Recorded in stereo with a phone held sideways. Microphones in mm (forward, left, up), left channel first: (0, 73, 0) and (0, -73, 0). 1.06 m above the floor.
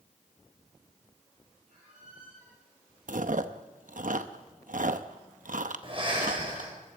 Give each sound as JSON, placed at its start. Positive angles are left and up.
{"t": 1.7, "sound": "a squeak", "side_deg": -70, "distance_m": 6.5}
{"t": 3.1, "sound": "chewing", "side_deg": -70, "distance_m": 0.8}
{"t": 5.8, "sound": "breathing", "side_deg": -40, "distance_m": 4.0}